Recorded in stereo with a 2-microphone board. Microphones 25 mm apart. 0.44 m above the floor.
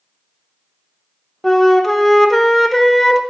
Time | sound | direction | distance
1.4 | a flute | 5° left (ahead or behind) | 0.6 m